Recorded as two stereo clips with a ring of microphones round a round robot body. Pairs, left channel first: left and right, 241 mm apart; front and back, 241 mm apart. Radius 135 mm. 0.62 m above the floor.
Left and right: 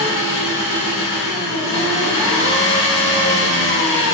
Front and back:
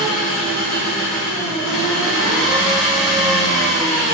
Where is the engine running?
90° left, 4 m.